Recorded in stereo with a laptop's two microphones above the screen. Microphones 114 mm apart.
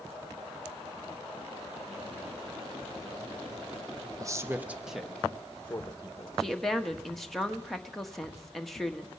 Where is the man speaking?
30° right (ahead or behind), 0.7 m; by 6.4 s 30° left (ahead or behind), 1.2 m.